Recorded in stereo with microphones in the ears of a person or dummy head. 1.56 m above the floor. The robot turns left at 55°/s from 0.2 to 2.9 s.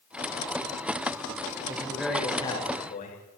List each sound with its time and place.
1.7 s a man speaking: 155° right, 6 m; by 3.2 s 140° left, 6 m